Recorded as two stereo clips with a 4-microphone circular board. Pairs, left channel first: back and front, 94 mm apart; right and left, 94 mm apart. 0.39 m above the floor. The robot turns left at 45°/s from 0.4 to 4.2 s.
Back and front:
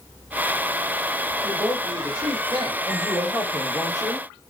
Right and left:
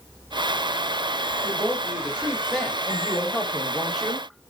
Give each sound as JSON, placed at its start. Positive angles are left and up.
{"t": 1.4, "sound": "a woman speaking", "azimuth_deg": 50, "distance_m": 1.4}
{"t": 2.9, "sound": "a woman speaking", "azimuth_deg": 55, "distance_m": 1.0}